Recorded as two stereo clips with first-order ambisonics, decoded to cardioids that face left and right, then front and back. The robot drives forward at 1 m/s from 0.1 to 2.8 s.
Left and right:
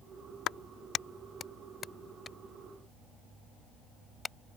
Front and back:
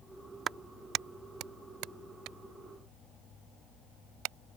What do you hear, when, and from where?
0.5 s a clap: 125° left; by 4.3 s 165° left